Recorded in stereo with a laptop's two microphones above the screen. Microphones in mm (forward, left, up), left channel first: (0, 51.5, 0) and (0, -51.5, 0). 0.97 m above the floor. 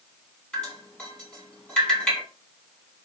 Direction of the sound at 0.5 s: 10° left (ahead or behind).